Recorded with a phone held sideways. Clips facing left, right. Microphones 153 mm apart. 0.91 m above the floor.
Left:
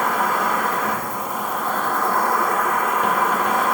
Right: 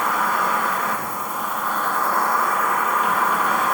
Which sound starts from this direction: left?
An insect, at 0.0 s.